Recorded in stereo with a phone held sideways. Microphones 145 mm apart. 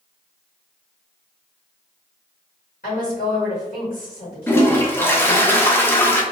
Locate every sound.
2.8 s a woman speaking: 70° left (ahead or behind), 1.8 m
4.5 s a toilet flushing: 15° left (ahead or behind), 0.5 m